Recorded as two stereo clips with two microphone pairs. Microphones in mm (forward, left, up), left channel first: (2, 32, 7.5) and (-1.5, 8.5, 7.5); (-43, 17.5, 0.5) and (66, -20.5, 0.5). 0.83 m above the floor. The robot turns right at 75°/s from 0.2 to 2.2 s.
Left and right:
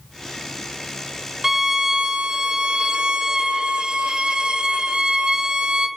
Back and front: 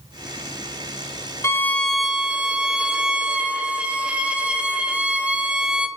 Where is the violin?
150° right, 0.8 m; by 5.9 s 90° right, 0.8 m.